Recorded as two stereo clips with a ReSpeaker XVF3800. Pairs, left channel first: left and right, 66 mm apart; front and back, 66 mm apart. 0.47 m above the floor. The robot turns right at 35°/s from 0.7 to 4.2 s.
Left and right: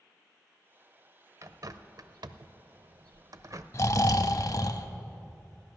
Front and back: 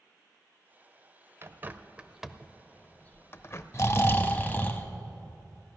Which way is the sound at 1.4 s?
125° right.